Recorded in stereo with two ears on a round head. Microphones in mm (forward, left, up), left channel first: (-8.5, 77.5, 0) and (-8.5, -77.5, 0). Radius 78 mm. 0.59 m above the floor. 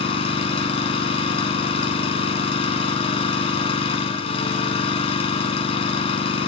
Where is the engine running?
35° left (ahead or behind), 1.4 m.